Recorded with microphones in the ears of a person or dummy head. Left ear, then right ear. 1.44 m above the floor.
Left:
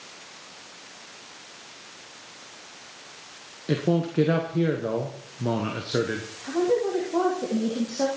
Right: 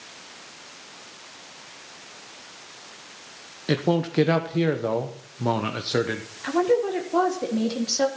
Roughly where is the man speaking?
Right.